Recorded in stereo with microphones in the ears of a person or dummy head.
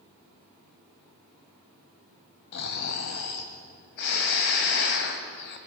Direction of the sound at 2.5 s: 55° left (ahead or behind).